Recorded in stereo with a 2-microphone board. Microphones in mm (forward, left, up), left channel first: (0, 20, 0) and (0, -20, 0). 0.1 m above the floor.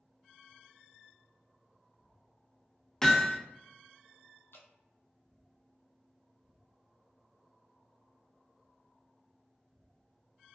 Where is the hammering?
15° left (ahead or behind), 0.7 m.